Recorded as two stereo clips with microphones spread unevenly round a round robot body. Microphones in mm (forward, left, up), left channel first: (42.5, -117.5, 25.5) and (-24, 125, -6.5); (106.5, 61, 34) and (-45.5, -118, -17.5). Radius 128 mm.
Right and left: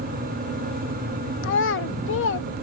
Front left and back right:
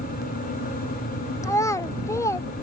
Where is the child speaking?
35° right.